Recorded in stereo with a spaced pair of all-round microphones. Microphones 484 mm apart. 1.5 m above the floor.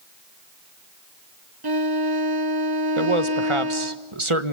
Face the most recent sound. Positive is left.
turn(degrees=-85)